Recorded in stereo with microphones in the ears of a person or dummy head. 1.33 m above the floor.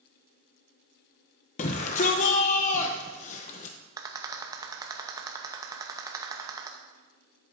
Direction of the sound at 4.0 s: 20° right (ahead or behind).